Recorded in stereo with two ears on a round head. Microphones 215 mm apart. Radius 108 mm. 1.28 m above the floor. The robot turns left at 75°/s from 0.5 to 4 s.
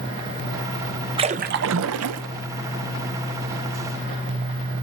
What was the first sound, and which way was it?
A splash, 25° right.